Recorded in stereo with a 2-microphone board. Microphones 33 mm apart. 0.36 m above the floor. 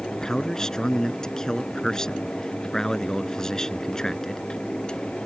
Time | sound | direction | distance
0.1 | a man speaking | 15° left (ahead or behind) | ?